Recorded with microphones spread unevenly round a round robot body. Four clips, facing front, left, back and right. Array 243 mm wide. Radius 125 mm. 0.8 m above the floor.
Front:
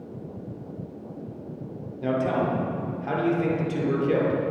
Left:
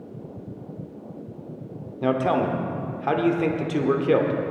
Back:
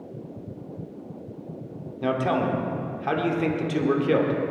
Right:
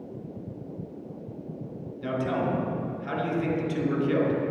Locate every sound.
2.0 s a man speaking: 105° left, 2.5 m